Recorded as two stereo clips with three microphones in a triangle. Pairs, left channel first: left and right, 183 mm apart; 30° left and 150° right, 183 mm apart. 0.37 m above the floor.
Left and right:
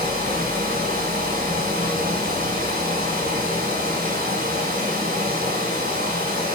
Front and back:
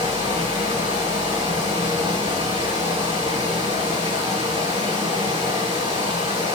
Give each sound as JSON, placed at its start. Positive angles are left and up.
{"t": 0.0, "sound": "running water", "azimuth_deg": -95, "distance_m": 1.7}